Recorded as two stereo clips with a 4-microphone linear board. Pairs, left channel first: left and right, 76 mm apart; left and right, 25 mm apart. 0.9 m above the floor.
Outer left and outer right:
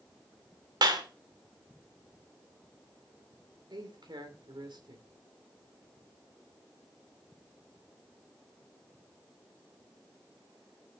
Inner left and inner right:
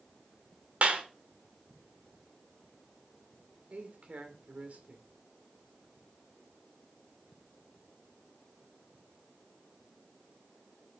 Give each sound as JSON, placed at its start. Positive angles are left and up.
{"t": 0.8, "sound": "a clap", "side_deg": -65, "distance_m": 2.5}
{"t": 3.7, "sound": "a man speaking", "side_deg": -70, "distance_m": 3.0}